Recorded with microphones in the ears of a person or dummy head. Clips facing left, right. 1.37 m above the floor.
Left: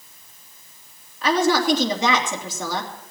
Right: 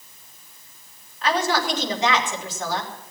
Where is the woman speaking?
90° left, 3 m.